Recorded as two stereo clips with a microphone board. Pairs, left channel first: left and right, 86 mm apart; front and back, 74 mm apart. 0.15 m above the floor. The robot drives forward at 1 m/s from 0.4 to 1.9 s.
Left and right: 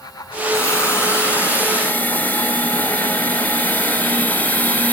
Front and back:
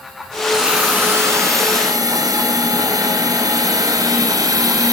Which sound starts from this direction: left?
A hiss, at 0.5 s.